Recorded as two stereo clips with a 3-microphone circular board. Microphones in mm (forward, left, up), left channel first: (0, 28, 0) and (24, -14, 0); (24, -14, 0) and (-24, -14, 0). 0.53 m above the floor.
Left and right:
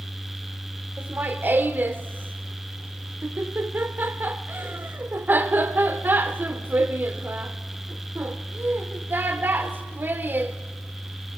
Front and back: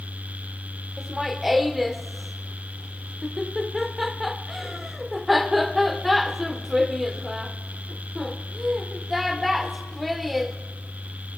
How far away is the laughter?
About 1.3 m.